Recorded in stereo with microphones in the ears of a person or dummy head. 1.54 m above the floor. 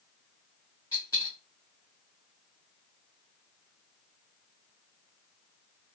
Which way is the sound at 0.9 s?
20° left (ahead or behind).